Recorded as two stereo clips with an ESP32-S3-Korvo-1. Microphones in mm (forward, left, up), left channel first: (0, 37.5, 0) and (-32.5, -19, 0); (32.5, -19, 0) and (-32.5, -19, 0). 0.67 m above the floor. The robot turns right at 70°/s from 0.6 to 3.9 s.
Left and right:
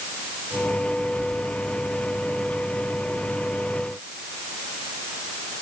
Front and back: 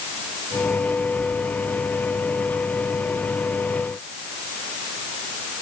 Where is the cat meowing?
No cat meowing in this recording.